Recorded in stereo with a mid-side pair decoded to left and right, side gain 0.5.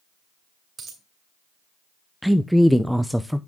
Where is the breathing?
No breathing in this recording.